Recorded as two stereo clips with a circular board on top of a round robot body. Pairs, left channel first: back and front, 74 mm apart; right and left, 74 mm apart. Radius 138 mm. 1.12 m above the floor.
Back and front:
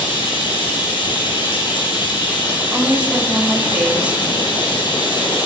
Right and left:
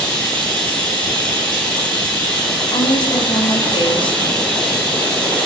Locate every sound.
0.0 s running water: 170° right, 7.5 m
2.7 s a woman speaking: 80° right, 3 m